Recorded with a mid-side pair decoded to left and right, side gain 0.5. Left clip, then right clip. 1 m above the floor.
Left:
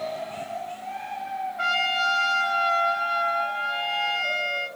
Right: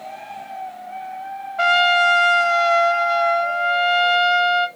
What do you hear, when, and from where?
1.6 s a trumpet: 70° right, 0.7 m